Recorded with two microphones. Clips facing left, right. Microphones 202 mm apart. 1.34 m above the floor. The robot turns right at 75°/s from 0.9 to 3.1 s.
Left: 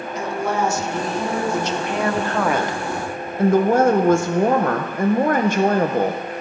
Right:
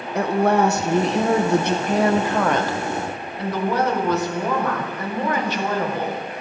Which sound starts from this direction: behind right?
A woman speaking, at 0.1 s.